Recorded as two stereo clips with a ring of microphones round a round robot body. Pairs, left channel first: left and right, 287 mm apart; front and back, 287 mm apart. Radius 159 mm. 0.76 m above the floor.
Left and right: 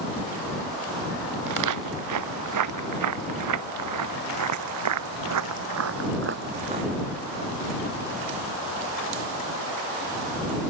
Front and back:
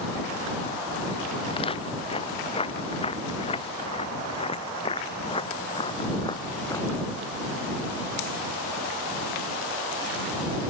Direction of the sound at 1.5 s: 75° right.